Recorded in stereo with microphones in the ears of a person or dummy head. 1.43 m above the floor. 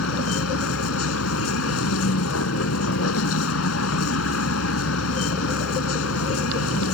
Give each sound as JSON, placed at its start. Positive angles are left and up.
{"t": 0.0, "sound": "a vehicle", "side_deg": 90}